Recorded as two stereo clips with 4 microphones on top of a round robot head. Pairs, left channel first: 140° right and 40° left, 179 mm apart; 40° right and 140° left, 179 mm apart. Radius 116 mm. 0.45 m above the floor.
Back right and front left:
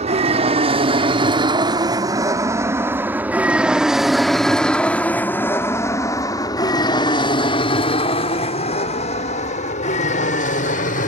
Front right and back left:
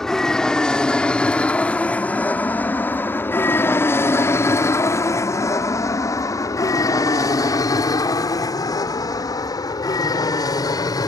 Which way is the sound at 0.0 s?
45° left.